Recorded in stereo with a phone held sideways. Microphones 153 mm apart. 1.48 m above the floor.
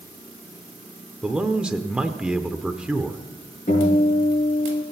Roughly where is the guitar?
Left.